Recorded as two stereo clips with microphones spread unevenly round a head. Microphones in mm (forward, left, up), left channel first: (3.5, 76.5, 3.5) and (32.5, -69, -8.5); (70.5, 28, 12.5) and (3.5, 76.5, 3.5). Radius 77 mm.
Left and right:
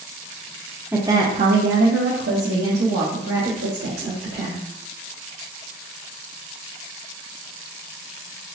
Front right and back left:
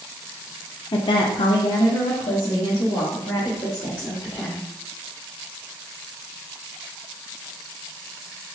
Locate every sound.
0.9 s a woman speaking: straight ahead, 0.6 m; by 4.7 s 110° right, 2.5 m